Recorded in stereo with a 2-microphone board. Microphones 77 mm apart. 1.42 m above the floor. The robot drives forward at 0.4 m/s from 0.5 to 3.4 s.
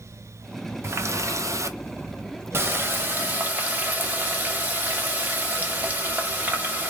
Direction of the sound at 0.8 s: 35° right (ahead or behind).